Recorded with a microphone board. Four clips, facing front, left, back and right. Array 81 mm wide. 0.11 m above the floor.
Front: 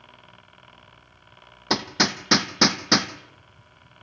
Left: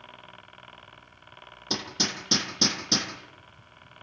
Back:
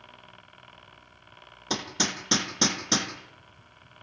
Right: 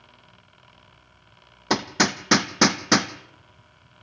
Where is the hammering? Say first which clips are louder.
Right 10 dB, front 6 dB; 65° right, 1.8 m.